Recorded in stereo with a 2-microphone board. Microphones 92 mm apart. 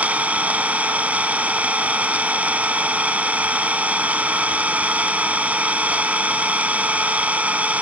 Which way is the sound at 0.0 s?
15° right (ahead or behind).